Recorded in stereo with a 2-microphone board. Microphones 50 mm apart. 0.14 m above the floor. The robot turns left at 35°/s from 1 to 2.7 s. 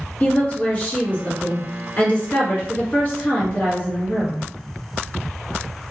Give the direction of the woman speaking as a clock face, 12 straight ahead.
8 o'clock.